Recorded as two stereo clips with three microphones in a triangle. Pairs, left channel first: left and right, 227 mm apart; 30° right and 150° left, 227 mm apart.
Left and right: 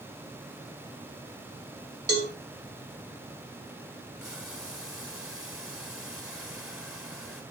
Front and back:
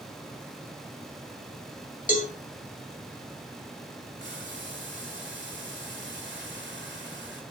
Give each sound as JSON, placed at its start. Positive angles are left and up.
{"t": 2.1, "sound": "a cowbell", "azimuth_deg": -85, "distance_m": 2.0}
{"t": 4.2, "sound": "boiling", "azimuth_deg": 180, "distance_m": 3.5}